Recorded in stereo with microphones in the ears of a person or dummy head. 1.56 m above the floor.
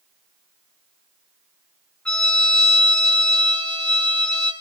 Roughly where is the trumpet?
Centre.